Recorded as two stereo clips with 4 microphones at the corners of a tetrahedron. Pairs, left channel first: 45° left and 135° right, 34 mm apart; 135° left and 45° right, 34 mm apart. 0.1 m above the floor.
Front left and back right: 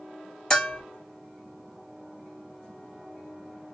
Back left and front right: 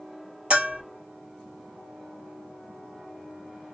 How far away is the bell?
About 1.5 m.